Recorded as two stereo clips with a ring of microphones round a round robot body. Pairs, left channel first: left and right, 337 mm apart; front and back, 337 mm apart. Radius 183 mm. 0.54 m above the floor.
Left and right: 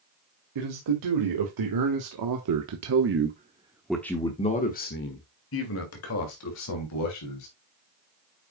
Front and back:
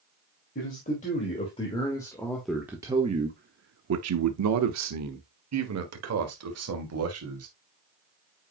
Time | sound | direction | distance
0.6 | a man speaking | 70° right | 2 m